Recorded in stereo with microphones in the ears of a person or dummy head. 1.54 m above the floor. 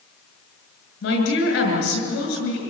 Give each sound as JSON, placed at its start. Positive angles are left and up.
{"t": 1.0, "sound": "a woman speaking", "side_deg": 75, "distance_m": 7.5}